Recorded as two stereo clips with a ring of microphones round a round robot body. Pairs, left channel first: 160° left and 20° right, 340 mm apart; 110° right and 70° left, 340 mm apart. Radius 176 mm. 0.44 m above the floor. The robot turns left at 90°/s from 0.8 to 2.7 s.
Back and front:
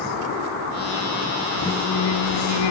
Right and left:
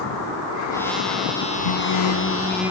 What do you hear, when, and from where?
1.6 s singing: 120° right; by 2.7 s 145° left